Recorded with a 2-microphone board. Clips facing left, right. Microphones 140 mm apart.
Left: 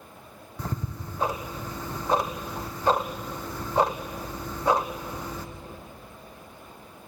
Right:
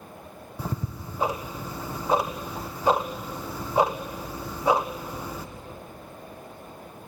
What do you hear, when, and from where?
0.6 s ticking: 5° right (ahead or behind), 1.5 m